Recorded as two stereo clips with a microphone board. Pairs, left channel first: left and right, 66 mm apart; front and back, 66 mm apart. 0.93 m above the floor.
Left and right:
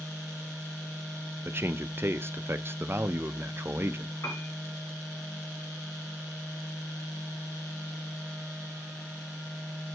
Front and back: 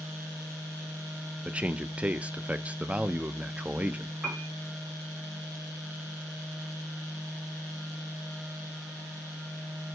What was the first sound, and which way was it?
A man speaking, 115° right.